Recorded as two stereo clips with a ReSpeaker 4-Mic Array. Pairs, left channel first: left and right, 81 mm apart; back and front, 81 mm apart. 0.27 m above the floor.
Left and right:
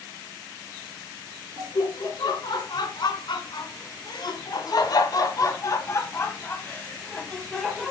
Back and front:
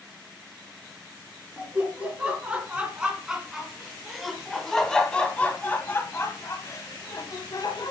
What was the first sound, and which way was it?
Laughter, 70° left.